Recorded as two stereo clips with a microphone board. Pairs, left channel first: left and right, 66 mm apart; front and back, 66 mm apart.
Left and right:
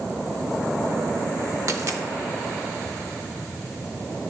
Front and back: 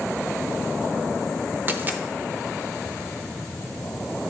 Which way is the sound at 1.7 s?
125° right.